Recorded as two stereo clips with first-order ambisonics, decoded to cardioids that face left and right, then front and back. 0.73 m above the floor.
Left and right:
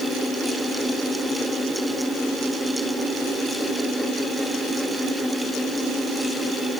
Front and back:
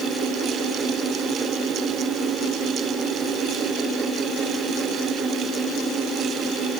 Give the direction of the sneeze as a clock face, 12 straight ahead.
I don't hear a sneeze.